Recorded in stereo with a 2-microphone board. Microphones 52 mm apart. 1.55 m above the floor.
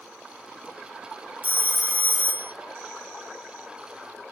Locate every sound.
1.4 s a phone ringing: 25° right (ahead or behind), 1.3 m